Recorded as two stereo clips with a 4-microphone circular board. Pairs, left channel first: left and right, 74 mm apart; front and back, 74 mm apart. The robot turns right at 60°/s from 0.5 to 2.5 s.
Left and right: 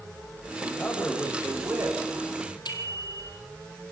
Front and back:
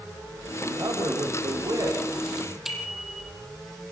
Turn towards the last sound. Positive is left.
turn(degrees=95)